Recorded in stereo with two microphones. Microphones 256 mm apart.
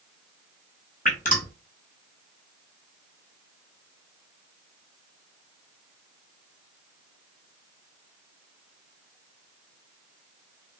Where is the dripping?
30° left (ahead or behind), 1.0 m.